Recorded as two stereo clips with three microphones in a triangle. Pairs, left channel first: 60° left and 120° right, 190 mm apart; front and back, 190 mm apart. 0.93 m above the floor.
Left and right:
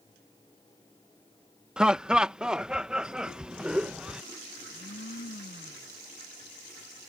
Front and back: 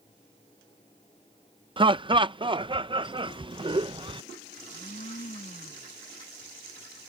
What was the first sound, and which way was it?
Laughter, 160° left.